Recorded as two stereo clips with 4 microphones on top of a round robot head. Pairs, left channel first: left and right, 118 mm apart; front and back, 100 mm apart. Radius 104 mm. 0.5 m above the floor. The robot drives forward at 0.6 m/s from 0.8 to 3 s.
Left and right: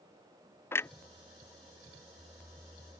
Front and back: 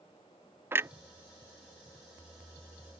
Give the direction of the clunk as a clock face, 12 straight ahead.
7 o'clock.